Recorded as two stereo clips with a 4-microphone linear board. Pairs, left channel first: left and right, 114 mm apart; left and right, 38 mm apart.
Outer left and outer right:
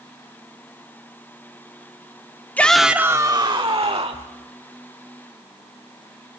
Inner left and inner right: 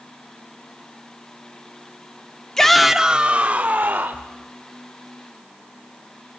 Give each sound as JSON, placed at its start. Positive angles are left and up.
{"t": 2.6, "sound": "a shout", "side_deg": 15, "distance_m": 0.8}